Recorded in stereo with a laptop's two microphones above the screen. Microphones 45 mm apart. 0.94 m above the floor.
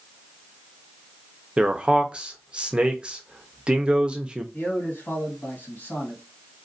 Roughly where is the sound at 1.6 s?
Right.